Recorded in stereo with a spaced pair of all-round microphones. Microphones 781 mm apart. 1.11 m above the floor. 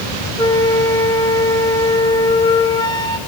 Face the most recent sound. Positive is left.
turn(degrees=5)  # may be behind; listen again after turning